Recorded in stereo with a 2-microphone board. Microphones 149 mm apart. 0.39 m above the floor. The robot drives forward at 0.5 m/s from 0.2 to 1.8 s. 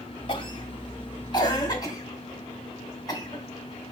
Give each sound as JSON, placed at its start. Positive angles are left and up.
{"t": 0.3, "sound": "a cough", "side_deg": 40, "distance_m": 1.6}